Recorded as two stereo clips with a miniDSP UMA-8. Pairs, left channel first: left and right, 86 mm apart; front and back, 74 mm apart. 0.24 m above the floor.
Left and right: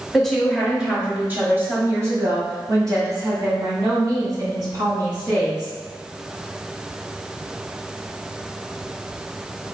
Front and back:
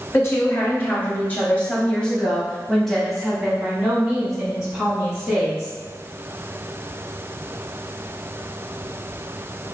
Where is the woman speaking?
5° left, 1.4 m; by 5.7 s 105° right, 2.5 m.